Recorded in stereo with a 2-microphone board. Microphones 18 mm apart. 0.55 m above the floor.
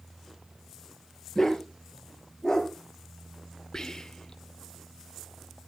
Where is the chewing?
I don't hear chewing.